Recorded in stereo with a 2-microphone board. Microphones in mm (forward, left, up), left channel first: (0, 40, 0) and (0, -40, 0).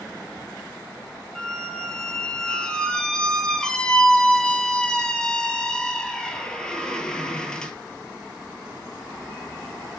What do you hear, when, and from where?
1.4 s a squeak: 10° left (ahead or behind), 0.5 m